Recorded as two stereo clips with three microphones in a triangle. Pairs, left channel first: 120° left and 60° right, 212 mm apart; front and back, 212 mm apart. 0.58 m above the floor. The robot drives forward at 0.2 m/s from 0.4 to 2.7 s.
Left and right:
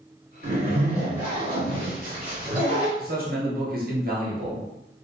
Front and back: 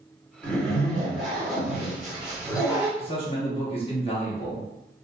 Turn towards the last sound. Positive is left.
turn(degrees=-50)